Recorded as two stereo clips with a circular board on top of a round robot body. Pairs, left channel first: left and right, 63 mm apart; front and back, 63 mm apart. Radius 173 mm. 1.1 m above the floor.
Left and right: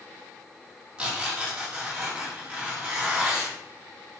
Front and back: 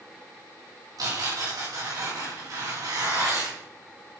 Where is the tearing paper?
165° right, 4.5 m.